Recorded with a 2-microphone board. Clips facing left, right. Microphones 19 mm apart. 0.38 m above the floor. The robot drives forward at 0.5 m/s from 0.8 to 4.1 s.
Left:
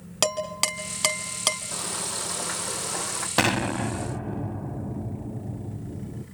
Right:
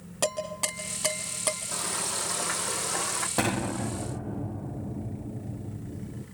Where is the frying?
15° left (ahead or behind), 2.5 m; by 3.3 s 10° left (ahead or behind), 3.5 m.